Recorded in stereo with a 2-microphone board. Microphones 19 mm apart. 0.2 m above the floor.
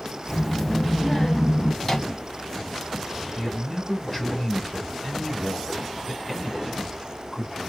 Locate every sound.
0.3 s a child speaking: centre (ahead or behind), 0.6 m; by 1.7 s 25° left (ahead or behind), 0.9 m
1.8 s a microwave: 20° left (ahead or behind), 1.4 m
3.4 s a man speaking: 20° left (ahead or behind), 1.3 m